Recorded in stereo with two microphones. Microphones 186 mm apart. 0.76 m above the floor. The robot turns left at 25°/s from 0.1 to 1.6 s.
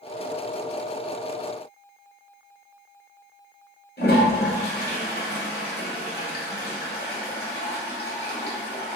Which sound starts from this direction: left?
A toilet flushing, at 4.0 s.